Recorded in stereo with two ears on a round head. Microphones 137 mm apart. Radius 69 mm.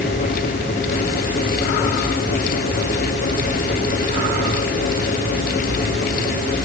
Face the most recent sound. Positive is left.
No sound to turn to.